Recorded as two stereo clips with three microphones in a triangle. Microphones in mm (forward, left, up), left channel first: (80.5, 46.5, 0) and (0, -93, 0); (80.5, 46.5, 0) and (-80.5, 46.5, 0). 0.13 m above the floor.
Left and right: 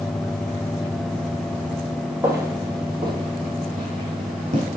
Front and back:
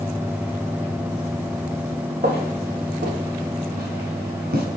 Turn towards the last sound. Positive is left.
turn(degrees=-170)